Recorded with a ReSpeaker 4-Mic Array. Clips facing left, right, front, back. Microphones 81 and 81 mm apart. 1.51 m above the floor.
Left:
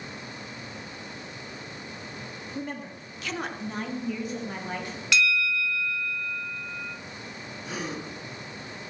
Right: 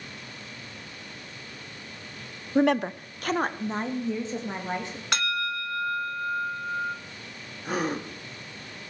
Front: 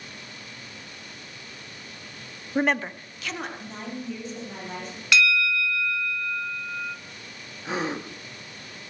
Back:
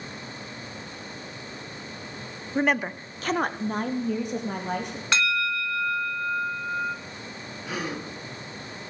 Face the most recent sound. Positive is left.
turn(degrees=-60)